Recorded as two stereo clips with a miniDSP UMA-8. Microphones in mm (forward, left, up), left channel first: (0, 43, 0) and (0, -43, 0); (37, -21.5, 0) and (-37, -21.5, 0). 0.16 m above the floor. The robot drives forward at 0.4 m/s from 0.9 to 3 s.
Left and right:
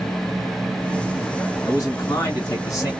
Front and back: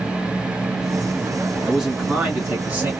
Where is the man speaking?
100° left, 1.5 m; by 2.9 s 125° left, 1.7 m.